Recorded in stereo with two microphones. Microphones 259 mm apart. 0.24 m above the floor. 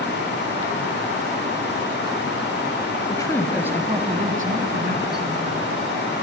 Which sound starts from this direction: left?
A woman speaking, at 3.1 s.